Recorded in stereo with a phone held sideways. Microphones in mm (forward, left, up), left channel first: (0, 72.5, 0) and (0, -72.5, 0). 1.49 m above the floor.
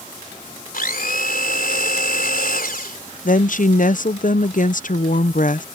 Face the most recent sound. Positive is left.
turn(degrees=65)  # may be behind; listen again after turning